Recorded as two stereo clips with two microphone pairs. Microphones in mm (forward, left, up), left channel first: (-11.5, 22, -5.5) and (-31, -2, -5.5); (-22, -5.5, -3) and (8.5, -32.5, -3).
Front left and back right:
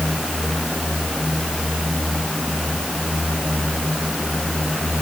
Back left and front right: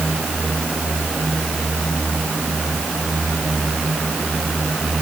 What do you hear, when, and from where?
Only background noise.